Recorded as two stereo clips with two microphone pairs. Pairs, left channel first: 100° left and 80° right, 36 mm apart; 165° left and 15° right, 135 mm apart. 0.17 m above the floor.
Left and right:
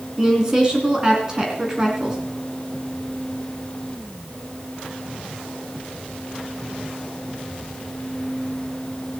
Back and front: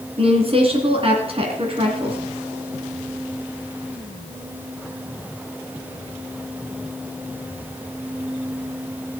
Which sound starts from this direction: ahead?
A woman speaking, at 0.2 s.